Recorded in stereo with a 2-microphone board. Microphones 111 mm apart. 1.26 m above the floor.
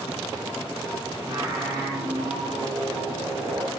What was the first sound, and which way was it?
Singing, 30° right (ahead or behind).